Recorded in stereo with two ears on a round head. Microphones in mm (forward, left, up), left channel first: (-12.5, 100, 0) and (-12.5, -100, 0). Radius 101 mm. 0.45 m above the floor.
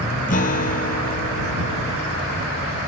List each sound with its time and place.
0.3 s a guitar: 35° left (ahead or behind)